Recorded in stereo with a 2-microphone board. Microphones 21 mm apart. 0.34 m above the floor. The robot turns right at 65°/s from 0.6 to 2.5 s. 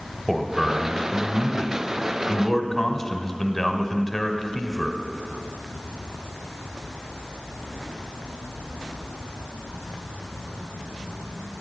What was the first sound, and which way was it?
A man speaking, 15° left (ahead or behind).